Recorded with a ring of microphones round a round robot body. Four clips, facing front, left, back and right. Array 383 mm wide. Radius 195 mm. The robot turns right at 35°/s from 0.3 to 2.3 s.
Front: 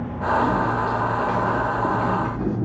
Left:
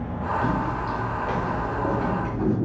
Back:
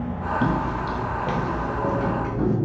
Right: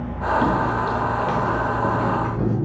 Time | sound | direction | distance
0.4 | footsteps | 130° right | 0.9 m